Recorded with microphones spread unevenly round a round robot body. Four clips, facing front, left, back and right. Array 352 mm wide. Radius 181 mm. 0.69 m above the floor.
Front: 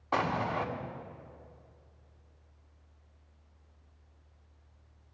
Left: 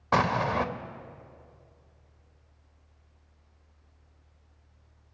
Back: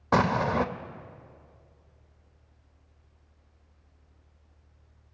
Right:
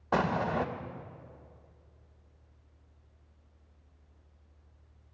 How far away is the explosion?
About 0.7 m.